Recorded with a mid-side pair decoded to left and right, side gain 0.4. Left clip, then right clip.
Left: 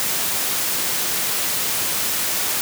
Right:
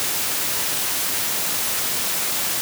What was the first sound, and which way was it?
Only background noise.